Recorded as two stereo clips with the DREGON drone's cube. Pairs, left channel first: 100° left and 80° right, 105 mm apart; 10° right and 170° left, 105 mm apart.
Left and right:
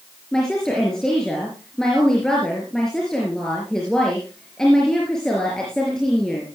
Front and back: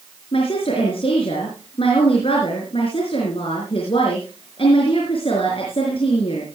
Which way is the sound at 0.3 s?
15° left.